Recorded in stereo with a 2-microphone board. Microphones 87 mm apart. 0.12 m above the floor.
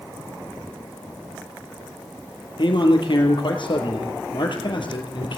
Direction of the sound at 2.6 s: 60° left (ahead or behind).